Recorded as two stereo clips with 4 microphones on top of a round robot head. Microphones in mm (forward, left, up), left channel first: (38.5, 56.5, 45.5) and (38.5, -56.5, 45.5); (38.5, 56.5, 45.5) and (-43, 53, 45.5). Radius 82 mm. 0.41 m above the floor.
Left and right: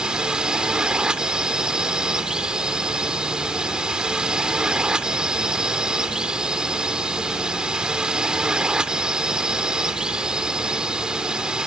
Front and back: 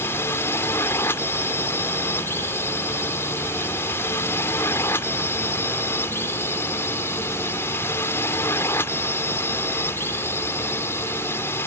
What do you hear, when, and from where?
0.0 s a drone: 15° right